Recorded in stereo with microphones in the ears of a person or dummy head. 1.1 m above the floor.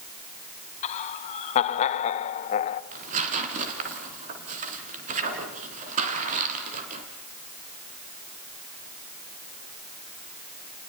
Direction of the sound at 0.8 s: 45° left (ahead or behind).